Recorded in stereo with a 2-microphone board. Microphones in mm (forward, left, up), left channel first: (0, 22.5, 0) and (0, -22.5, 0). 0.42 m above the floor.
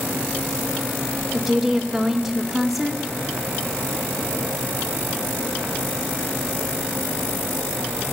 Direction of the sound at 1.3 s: Centre (ahead or behind).